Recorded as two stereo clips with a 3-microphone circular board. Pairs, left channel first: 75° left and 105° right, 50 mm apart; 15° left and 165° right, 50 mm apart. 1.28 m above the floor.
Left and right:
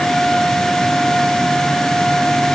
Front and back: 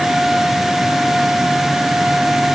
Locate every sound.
Only background noise.